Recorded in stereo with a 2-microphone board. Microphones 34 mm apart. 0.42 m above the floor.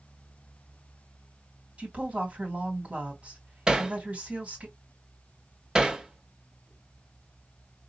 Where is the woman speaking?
40° right (ahead or behind), 3 m.